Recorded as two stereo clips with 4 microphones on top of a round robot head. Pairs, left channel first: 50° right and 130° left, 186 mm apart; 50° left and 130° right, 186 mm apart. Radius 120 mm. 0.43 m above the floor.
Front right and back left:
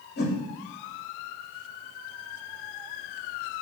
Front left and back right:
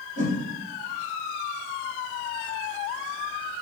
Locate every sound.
0.2 s a whoosh: 75° right, 2.5 m